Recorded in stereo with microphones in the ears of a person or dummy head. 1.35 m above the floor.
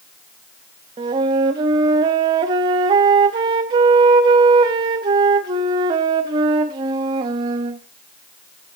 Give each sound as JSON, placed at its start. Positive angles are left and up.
{"t": 1.0, "sound": "a flute", "side_deg": -20, "distance_m": 0.9}